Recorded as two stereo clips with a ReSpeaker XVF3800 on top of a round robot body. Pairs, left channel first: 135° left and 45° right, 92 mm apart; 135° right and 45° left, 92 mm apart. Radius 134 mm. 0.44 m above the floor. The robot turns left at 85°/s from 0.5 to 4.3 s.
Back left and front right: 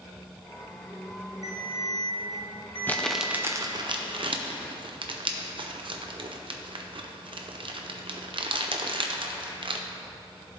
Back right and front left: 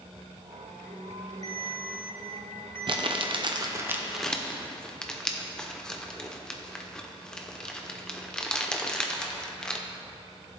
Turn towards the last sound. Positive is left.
turn(degrees=-55)